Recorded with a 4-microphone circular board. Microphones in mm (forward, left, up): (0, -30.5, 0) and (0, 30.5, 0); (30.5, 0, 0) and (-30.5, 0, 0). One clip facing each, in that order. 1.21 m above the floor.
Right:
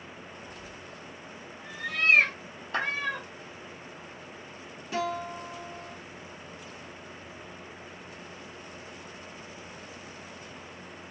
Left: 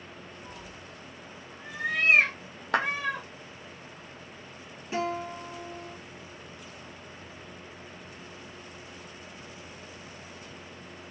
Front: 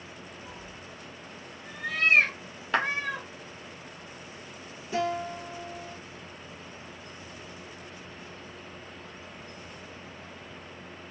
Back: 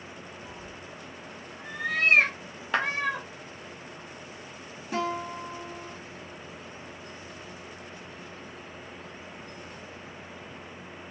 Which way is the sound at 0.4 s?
85° left.